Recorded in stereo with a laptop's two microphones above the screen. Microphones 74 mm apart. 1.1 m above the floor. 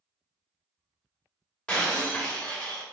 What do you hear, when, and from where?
1.7 s breaking glass: 15° left (ahead or behind), 2.0 m